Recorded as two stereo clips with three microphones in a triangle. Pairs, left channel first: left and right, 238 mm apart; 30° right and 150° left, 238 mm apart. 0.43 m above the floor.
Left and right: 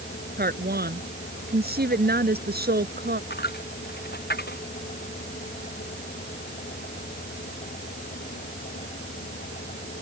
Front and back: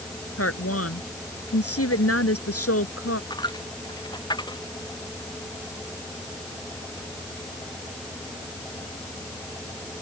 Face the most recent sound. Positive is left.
turn(degrees=40)